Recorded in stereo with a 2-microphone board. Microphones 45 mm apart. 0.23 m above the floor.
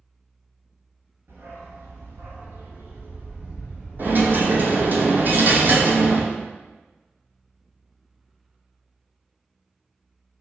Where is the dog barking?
70° right (ahead or behind), 1.3 m; by 5.0 s 10° right (ahead or behind), 2.5 m.